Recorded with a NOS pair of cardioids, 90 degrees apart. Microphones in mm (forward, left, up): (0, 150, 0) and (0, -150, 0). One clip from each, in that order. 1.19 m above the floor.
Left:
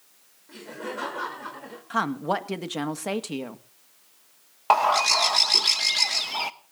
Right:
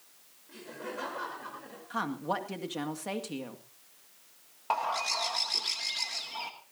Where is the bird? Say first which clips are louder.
Left 11 dB; 55° left, 1.1 m.